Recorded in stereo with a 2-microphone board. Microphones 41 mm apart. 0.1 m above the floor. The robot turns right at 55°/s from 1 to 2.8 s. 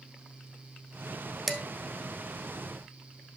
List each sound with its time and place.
1.5 s dishes clattering: centre (ahead or behind), 0.9 m; by 1.6 s 5° right (ahead or behind), 0.9 m